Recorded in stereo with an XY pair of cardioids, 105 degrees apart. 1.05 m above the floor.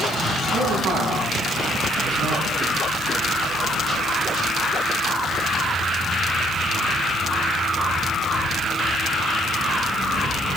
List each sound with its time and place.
0.5 s a man speaking: 65° right, 9.5 m; by 2.5 s 75° right, 8 m